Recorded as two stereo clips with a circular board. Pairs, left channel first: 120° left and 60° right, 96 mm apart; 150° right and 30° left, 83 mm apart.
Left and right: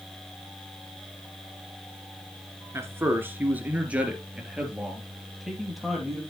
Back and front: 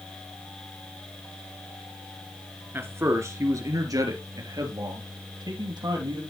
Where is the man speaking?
15° right, 1.7 m; by 6.2 s 30° left, 3 m.